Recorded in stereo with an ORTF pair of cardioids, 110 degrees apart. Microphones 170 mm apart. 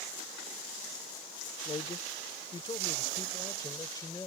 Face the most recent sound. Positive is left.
turn(degrees=20)